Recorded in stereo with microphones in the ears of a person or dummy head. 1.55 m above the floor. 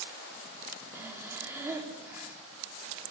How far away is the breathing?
About 3.5 m.